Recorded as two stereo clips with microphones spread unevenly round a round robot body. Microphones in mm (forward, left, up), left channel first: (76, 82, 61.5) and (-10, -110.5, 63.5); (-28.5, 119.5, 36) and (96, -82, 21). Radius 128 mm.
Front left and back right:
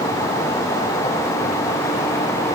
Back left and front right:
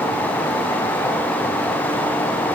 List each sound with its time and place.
Only background noise.